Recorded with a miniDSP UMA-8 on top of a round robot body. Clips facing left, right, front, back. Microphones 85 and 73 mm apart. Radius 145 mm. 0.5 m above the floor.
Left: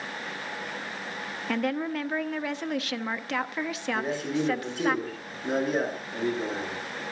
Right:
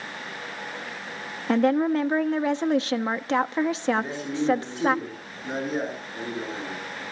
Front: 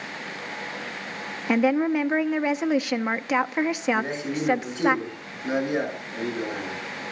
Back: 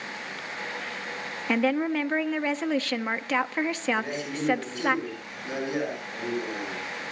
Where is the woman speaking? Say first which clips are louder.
Right 8 dB, front 4 dB; 65° right, 0.8 m.